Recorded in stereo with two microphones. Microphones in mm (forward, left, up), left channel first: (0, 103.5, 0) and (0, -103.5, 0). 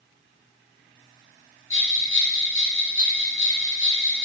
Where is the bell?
75° left (ahead or behind), 3 m.